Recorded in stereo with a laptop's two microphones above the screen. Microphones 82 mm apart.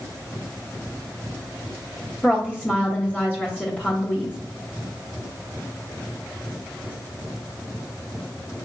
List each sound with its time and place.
2.2 s a woman speaking: 20° left (ahead or behind), 0.9 m